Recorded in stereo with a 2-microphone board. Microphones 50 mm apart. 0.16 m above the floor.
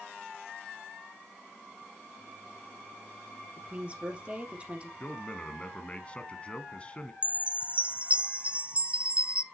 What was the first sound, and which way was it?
A woman speaking, 25° right (ahead or behind).